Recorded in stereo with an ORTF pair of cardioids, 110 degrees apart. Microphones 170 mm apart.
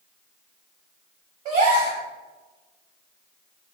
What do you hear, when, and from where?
1.4 s a gasp: 60° right, 0.8 m